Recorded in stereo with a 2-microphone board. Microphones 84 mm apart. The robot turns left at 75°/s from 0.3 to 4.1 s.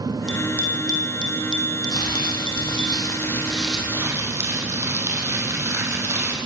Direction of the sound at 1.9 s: 130° left.